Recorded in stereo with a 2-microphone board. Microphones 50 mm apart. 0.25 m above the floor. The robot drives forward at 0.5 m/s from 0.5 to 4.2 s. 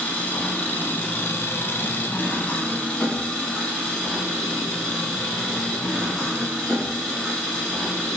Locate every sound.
0.0 s an engine running: 30° left (ahead or behind), 0.8 m; by 8.2 s 15° left (ahead or behind), 1.4 m